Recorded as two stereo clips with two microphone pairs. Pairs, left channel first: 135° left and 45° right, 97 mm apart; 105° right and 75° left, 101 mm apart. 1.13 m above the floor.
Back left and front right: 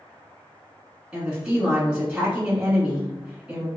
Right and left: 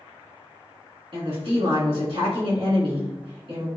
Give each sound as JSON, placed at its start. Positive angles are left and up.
{"t": 1.1, "sound": "a woman speaking", "azimuth_deg": 40, "distance_m": 1.6}